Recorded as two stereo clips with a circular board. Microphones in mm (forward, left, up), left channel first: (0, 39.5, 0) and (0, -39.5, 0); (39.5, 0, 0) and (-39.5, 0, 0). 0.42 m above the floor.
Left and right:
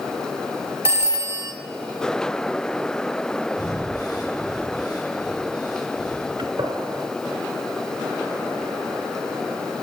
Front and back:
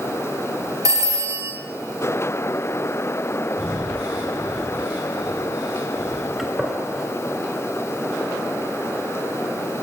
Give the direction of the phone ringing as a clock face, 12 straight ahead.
5 o'clock.